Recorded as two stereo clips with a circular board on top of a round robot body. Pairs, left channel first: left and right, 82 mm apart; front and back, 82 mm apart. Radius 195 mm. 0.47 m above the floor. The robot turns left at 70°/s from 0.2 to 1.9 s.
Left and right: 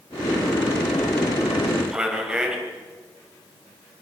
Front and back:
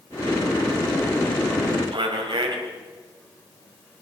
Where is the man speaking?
170° right, 3.5 m.